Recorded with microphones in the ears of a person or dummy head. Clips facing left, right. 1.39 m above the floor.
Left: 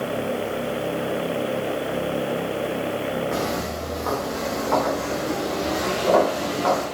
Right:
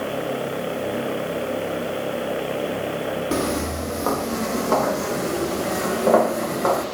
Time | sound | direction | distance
3.3 | footsteps | 55° right (ahead or behind) | 2.5 m